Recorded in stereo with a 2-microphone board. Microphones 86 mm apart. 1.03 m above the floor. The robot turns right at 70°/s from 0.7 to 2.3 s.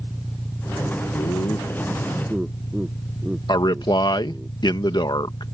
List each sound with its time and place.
0.0 s an engine running: 10° left; by 5.5 s 125° left
1.1 s laughter: 75° left (ahead or behind); by 4.5 s 10° right (ahead or behind)
3.5 s a man speaking: 55° left (ahead or behind)